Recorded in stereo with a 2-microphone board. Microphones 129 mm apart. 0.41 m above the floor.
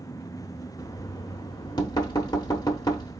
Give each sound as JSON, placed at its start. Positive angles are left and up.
{"t": 0.8, "sound": "knocking", "side_deg": 30, "distance_m": 0.9}